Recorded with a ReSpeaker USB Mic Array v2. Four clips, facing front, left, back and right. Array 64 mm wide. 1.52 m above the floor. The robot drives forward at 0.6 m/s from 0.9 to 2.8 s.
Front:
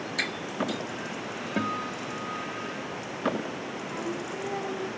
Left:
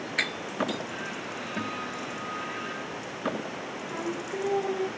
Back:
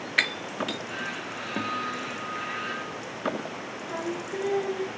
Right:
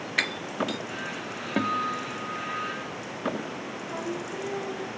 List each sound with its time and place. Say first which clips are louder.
0.2 s breaking glass: right 2 dB, back 4 dB; 160° right, 1.8 m
1.6 s a guitar: right 9 dB, even; 90° right, 1.1 m; by 3.0 s 125° right, 1.3 m
3.9 s singing: even, back 3 dB; 170° right, 6 m